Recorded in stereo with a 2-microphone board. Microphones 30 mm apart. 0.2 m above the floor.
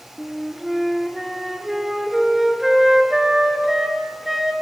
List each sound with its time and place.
0.2 s a flute: 5° right (ahead or behind), 1.6 m